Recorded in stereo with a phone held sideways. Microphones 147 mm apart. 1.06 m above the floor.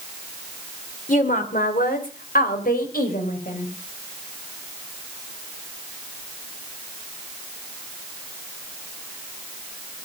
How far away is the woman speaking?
About 3 m.